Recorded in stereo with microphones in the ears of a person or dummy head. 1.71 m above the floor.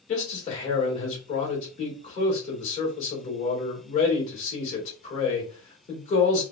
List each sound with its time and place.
0.1 s a man speaking: 40° left (ahead or behind), 2 m